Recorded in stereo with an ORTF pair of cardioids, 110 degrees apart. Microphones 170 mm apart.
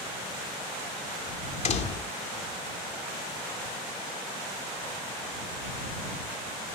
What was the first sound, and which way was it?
A door slam, 40° left.